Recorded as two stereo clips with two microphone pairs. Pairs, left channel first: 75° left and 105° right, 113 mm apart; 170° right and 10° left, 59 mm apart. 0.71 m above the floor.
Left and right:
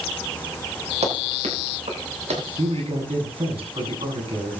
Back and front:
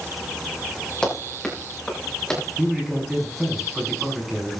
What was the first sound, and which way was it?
Running footsteps, 90° right.